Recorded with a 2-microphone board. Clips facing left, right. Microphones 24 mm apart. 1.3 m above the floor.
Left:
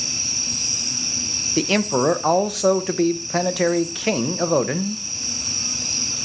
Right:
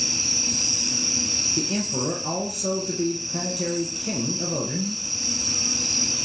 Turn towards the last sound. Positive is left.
turn(degrees=85)